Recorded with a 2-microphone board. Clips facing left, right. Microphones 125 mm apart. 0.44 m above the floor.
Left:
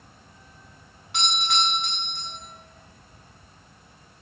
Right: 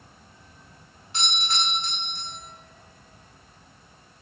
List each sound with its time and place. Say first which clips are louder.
1.1 s a doorbell: left 4 dB; 65° left (ahead or behind), 6 m